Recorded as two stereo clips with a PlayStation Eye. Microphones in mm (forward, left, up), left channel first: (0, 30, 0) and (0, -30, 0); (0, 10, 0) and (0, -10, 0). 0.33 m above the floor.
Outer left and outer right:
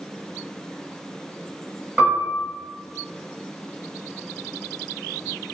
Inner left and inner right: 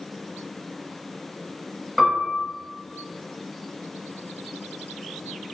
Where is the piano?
25° right (ahead or behind), 1.2 m.